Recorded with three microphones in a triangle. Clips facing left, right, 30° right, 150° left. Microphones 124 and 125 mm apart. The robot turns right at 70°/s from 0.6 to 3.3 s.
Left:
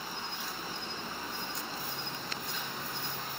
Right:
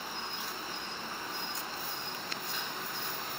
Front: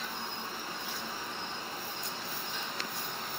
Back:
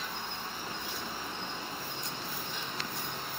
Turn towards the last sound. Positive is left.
turn(degrees=-130)